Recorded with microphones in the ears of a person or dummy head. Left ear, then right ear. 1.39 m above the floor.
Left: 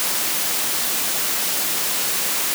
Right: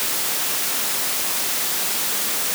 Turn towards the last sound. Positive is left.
No sound to turn to.